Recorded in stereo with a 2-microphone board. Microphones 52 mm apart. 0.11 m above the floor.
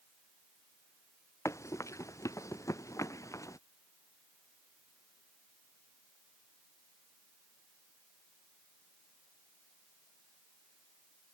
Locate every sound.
1.4 s running footsteps: 70° left (ahead or behind); by 3.6 s 80° left